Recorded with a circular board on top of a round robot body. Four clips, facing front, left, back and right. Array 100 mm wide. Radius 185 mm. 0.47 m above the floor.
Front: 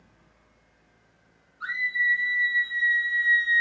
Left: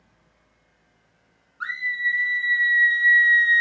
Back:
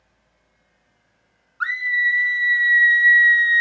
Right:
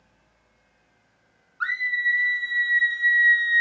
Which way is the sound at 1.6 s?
165° right.